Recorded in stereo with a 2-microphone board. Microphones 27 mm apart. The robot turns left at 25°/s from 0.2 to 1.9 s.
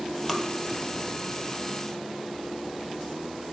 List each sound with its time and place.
0.3 s tapping: 5° left (ahead or behind), 1.6 m